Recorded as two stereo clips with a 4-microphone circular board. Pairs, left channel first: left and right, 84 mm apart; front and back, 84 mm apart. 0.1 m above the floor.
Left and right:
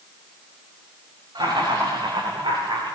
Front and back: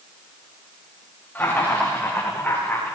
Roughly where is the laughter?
Ahead right.